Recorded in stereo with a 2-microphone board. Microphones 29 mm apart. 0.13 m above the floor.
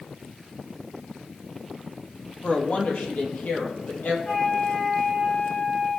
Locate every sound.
2.4 s a woman speaking: 50° left (ahead or behind), 3 m; by 4.2 s 70° left (ahead or behind), 3 m
4.2 s a flute: 50° left (ahead or behind), 3.5 m